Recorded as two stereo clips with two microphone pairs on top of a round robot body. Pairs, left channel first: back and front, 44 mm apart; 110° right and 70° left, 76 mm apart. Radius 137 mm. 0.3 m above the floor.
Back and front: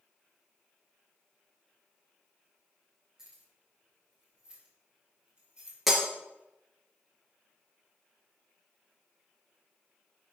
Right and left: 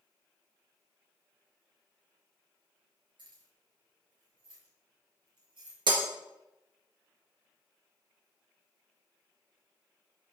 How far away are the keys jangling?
About 5 m.